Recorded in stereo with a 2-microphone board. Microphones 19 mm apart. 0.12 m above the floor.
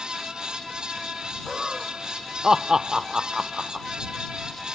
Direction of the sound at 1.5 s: 35° right (ahead or behind).